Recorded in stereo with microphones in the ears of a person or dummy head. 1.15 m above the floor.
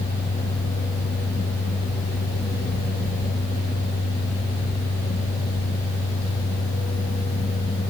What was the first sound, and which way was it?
Only background noise.